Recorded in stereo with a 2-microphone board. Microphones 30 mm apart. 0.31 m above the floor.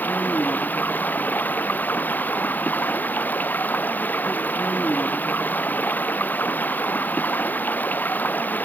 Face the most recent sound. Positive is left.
turn(degrees=80)